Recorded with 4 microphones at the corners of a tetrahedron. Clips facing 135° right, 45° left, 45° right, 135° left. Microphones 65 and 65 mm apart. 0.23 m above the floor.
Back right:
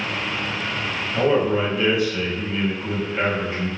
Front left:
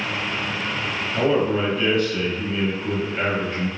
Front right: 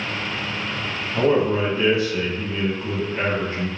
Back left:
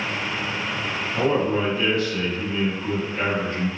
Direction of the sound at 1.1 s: 65° right.